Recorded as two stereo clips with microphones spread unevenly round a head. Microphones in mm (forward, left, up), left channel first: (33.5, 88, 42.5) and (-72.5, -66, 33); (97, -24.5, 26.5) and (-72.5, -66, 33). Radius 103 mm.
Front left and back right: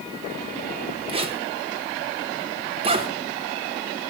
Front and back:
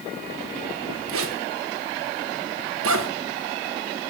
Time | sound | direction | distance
1.1 | a zipper | 175° left | 2 m